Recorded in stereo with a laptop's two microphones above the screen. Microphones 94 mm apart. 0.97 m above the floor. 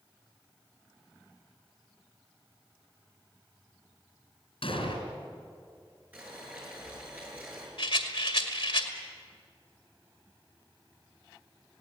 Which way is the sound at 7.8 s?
70° left (ahead or behind).